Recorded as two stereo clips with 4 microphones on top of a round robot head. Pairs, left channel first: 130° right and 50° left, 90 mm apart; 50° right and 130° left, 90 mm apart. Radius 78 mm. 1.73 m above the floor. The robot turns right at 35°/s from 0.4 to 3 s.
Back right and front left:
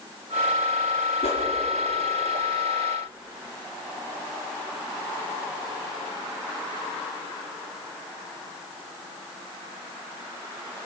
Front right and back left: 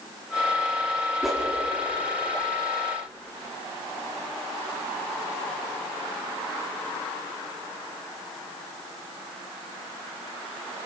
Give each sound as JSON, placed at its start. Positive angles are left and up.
{"t": 1.2, "sound": "a whoosh", "azimuth_deg": -145, "distance_m": 4.5}